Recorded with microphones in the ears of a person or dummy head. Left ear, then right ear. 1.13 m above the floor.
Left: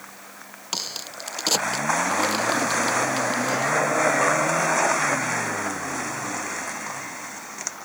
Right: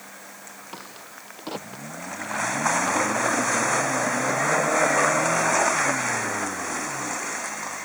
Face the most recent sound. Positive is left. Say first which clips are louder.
# left 14 dB
turn(degrees=75)  # may be behind; listen again after turning